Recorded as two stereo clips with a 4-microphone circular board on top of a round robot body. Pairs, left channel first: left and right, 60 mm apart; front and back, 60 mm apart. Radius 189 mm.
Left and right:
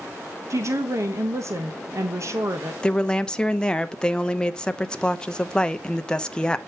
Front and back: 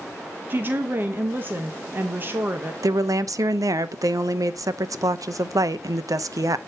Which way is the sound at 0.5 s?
125° right.